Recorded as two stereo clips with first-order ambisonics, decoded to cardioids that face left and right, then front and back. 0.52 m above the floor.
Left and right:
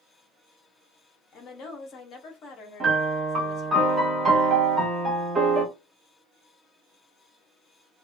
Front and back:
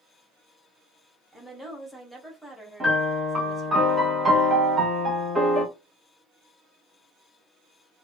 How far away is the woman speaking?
About 0.8 m.